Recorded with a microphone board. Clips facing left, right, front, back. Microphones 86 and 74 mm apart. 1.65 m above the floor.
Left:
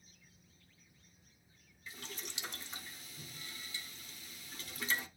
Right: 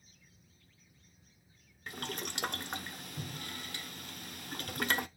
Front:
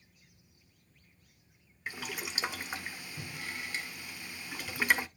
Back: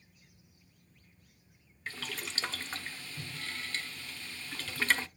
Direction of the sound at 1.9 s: 75° right.